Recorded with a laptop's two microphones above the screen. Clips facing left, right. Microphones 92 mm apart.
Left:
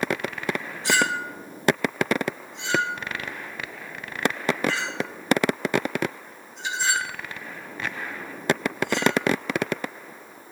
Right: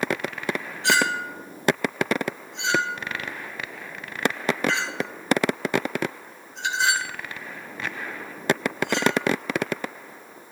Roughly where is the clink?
Right.